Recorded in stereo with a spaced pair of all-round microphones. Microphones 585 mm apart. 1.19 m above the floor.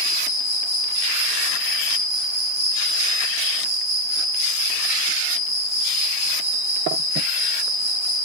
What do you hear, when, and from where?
0.0 s an insect: 35° left (ahead or behind), 4 m